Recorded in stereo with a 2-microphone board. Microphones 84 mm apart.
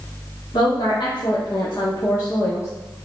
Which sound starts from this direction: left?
A woman speaking, at 0.5 s.